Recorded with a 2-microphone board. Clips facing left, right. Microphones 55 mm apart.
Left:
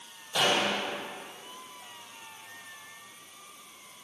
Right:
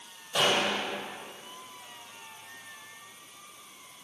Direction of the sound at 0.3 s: 15° right (ahead or behind).